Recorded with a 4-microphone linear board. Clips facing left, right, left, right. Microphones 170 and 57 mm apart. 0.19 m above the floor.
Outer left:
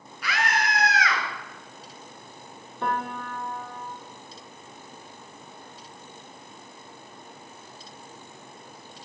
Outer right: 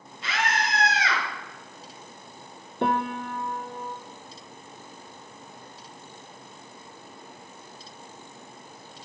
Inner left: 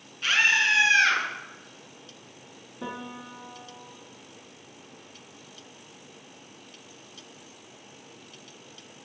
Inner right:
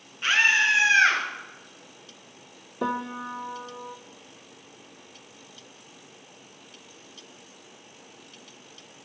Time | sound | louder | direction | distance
0.2 | a scream | outer left 1 dB, inner right 2 dB | 25° right (ahead or behind) | 2.5 m
2.8 | a piano | outer right 4 dB, inner right 8 dB | 70° right (ahead or behind) | 1.0 m